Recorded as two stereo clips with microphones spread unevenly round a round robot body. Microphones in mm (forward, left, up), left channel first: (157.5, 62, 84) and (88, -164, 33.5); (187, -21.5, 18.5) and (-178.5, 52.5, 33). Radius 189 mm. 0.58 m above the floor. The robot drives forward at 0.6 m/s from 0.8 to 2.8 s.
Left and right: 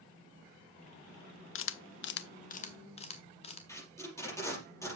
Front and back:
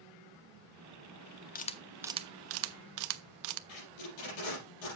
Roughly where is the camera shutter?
Ahead left.